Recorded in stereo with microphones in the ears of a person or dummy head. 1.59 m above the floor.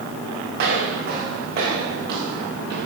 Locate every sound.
0.6 s footsteps: 55° right (ahead or behind), 4 m